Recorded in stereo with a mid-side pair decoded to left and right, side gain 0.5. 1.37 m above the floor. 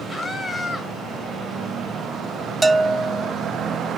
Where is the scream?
5° left, 7 m.